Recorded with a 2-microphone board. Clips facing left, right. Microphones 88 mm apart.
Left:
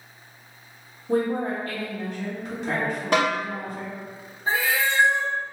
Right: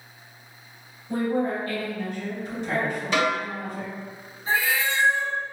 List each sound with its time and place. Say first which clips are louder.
1.1 s a woman speaking: left 1 dB; 60° left (ahead or behind), 2.0 m
3.1 s a snare drum: left 2 dB; 55° left (ahead or behind), 1.9 m
4.5 s a cat meowing: left 1 dB; 45° left (ahead or behind), 1.4 m